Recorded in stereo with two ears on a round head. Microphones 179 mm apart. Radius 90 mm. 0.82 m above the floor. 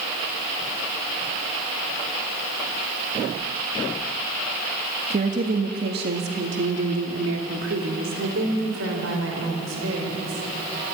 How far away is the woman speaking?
About 1.5 m.